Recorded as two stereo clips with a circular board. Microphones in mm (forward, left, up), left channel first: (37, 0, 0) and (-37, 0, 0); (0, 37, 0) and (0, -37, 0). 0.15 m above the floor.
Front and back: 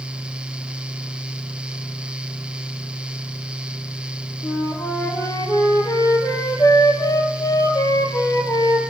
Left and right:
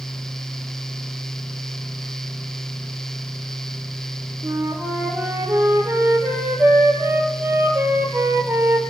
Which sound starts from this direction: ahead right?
A flute, at 4.4 s.